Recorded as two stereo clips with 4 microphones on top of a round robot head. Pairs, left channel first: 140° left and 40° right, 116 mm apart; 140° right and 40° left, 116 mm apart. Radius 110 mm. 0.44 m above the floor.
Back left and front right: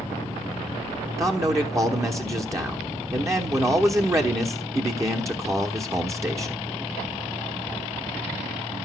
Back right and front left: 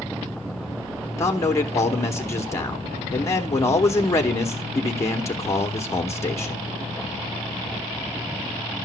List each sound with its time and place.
1.2 s a man speaking: 90° right, 1.1 m